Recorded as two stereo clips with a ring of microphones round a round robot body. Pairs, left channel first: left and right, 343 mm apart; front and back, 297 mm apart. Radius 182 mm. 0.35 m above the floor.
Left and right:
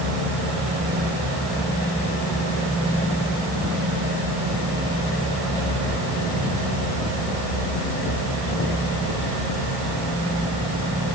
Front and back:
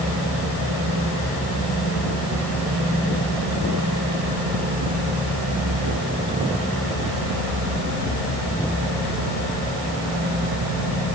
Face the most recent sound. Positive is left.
No sound to turn to.